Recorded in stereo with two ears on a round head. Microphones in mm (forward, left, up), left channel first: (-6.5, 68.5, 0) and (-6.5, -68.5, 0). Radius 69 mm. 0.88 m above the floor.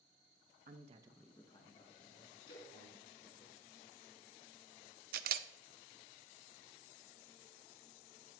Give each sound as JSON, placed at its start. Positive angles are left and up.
{"t": 0.7, "sound": "a man speaking", "side_deg": -60, "distance_m": 0.9}
{"t": 2.5, "sound": "a splash", "side_deg": 80, "distance_m": 3.0}
{"t": 5.1, "sound": "a camera shutter", "side_deg": -65, "distance_m": 0.5}